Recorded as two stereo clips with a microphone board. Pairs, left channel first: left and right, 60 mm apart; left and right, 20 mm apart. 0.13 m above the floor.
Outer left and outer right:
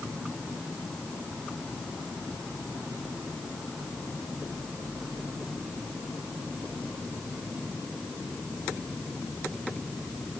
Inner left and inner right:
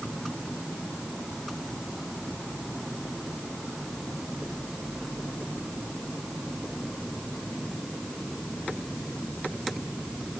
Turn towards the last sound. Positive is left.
No sound to turn to.